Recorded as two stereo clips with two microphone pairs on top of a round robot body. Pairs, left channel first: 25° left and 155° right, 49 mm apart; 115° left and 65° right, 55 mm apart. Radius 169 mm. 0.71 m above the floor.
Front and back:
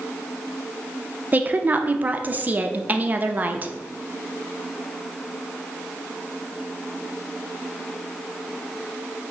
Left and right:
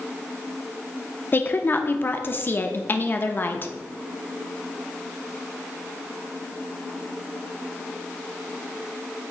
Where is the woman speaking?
165° left, 0.7 m.